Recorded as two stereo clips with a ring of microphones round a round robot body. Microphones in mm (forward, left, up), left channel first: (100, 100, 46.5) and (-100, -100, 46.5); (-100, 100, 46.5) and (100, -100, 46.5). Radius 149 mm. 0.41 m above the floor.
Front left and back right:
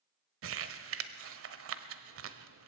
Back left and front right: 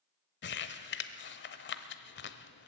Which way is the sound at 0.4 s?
175° right.